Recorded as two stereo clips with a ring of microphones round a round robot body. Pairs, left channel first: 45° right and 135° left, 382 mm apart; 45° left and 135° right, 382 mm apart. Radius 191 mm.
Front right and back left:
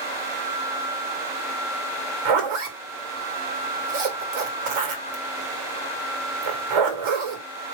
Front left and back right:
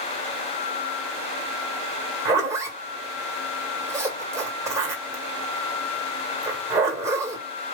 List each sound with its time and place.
2.2 s a zipper: 140° left, 2 m